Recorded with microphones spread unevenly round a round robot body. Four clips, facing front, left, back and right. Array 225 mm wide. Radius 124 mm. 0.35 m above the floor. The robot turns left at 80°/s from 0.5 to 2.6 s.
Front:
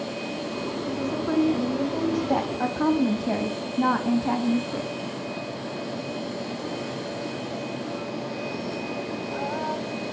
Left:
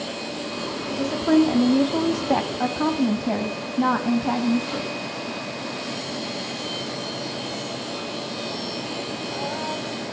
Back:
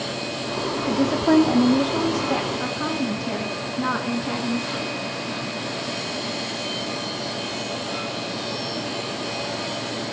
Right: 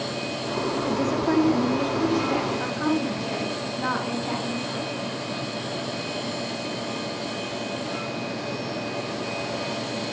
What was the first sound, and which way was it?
A woman speaking, 160° right.